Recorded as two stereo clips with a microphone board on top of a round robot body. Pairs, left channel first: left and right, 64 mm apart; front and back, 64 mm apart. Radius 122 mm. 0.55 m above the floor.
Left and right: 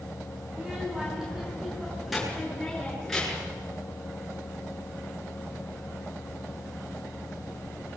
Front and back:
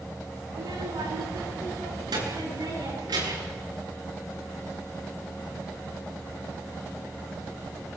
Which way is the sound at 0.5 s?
165° right.